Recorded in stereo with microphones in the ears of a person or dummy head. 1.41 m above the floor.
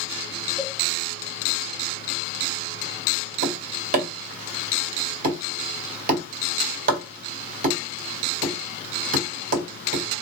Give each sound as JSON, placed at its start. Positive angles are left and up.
{"t": 0.6, "sound": "a cowbell", "side_deg": -5, "distance_m": 0.7}
{"t": 3.4, "sound": "tapping", "side_deg": -55, "distance_m": 0.7}